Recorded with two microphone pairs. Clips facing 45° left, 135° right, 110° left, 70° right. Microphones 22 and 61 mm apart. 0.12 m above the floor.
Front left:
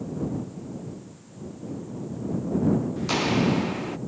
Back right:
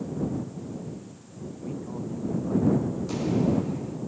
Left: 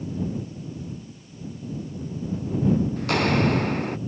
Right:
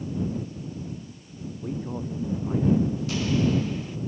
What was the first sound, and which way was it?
A man speaking, 75° right.